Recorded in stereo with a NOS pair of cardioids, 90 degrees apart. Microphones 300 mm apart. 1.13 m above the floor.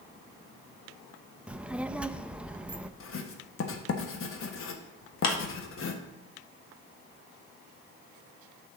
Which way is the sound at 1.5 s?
5° right.